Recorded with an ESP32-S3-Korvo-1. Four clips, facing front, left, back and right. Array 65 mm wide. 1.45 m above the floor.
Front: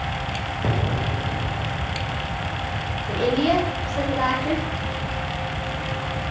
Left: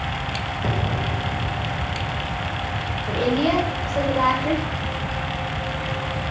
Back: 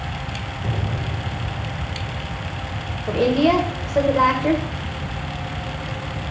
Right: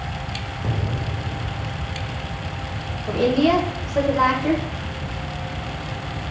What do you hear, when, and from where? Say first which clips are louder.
0.6 s an explosion: left 2 dB, front 3 dB; 25° left, 0.7 m
3.1 s a woman speaking: right 3 dB, back 4 dB; 165° right, 1.3 m